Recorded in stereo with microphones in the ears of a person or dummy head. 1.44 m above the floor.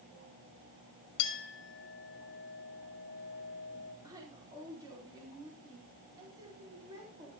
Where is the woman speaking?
20° right (ahead or behind), 3.5 m.